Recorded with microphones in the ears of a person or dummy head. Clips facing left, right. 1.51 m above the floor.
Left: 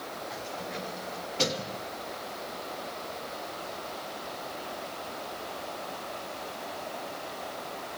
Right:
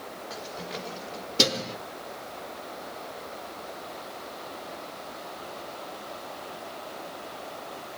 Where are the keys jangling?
40° right (ahead or behind), 4 m; by 1.8 s 55° right (ahead or behind), 2 m.